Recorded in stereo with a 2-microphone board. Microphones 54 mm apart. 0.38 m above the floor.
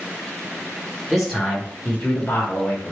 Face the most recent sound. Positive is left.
turn(degrees=40)  # may be behind; listen again after turning